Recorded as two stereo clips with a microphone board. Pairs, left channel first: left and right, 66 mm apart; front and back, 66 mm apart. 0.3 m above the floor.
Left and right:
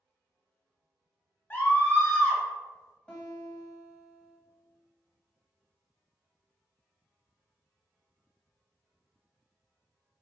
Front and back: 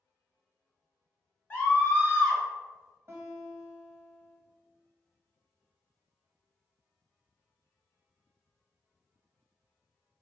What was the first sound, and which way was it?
A scream, 65° left.